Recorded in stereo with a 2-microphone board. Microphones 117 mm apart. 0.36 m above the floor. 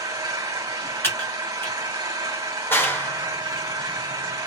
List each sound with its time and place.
0.0 s an engine running: 30° right (ahead or behind), 1.3 m
1.0 s typing on a keyboard: 20° left (ahead or behind), 1.1 m
2.7 s a clap: 20° left (ahead or behind), 0.6 m